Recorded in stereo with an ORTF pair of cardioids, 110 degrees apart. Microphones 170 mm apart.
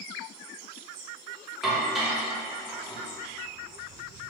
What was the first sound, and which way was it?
Dishes clattering, straight ahead.